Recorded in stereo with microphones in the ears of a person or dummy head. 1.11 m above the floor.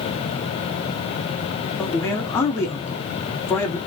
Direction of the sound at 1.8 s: 15° left (ahead or behind).